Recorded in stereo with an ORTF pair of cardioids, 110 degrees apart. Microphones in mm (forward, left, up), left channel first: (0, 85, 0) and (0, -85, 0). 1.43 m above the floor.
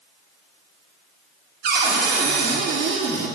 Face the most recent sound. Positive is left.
turn(degrees=-70)